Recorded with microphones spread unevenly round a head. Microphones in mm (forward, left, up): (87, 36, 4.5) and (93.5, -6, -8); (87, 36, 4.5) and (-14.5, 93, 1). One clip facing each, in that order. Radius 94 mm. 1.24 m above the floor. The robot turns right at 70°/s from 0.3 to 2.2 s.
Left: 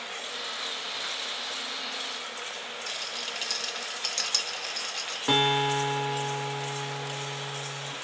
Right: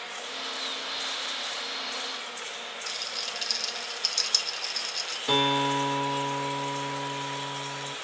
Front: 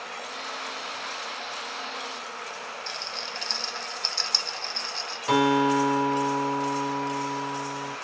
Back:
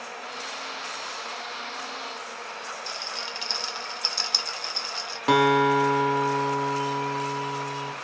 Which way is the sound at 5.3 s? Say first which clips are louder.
Even, back 2 dB; 135° left.